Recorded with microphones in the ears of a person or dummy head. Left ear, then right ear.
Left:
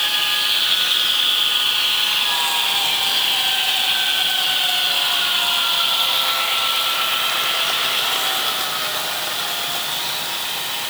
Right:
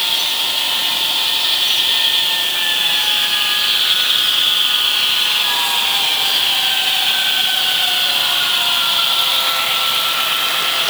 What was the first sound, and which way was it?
Only background noise.